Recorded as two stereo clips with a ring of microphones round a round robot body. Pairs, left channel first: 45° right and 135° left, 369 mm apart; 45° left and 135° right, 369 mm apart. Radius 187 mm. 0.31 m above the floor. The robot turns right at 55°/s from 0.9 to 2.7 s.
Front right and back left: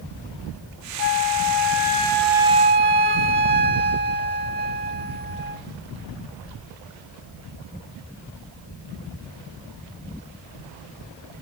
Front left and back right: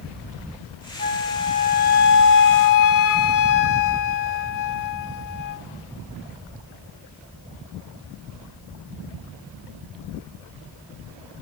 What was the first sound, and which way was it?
A flute, 25° right.